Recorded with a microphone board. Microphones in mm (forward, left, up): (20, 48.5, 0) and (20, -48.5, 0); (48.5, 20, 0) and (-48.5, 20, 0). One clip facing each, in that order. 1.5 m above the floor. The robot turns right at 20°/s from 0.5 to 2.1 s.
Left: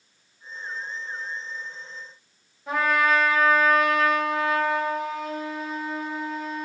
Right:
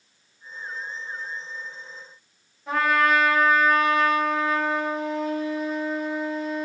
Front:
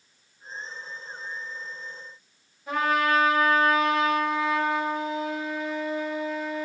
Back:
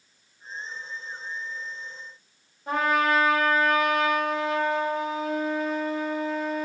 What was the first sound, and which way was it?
A trumpet, straight behind.